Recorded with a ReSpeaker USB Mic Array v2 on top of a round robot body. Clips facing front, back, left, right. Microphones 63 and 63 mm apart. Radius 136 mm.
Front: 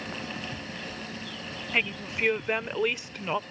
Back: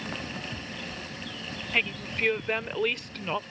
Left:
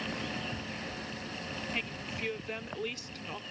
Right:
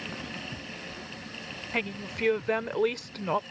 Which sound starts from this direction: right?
A woman speaking, at 1.7 s.